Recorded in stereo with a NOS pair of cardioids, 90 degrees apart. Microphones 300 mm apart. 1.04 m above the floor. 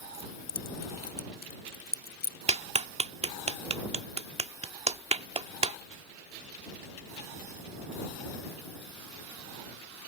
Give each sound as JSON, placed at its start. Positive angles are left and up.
{"t": 0.1, "sound": "keys jangling", "azimuth_deg": 30}
{"t": 2.5, "sound": "a clap", "azimuth_deg": -20}